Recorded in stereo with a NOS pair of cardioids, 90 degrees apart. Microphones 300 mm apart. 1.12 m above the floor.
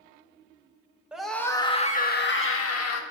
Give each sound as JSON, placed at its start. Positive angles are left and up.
{"t": 1.1, "sound": "a scream", "azimuth_deg": -5, "distance_m": 1.5}